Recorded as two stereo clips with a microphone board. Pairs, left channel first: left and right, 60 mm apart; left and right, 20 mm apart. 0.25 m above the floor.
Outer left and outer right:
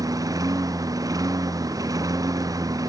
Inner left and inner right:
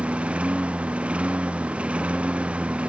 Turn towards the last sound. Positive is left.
turn(degrees=-85)